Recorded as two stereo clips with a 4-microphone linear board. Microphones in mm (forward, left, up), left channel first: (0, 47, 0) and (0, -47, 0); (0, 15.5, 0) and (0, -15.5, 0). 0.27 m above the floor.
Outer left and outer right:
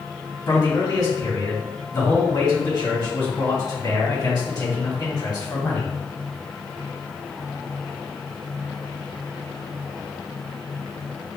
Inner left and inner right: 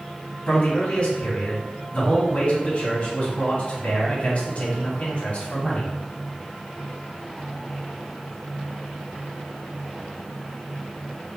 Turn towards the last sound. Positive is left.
turn(degrees=45)  # may be behind; listen again after turning